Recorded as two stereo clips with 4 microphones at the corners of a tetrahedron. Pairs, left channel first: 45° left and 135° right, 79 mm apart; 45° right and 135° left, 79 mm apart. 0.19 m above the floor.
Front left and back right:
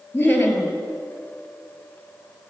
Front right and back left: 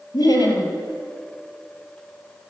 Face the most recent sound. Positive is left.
turn(degrees=-25)